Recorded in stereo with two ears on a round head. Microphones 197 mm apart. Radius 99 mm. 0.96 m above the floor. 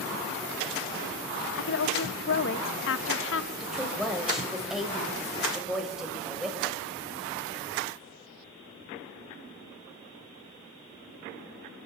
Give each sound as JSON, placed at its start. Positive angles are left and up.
{"t": 1.6, "sound": "a woman speaking", "side_deg": 60, "distance_m": 1.3}
{"t": 3.6, "sound": "a woman speaking", "side_deg": 0, "distance_m": 4.0}